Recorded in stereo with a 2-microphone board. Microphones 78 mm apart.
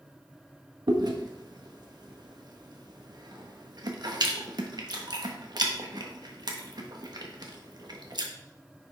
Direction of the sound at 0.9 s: 60° right (ahead or behind).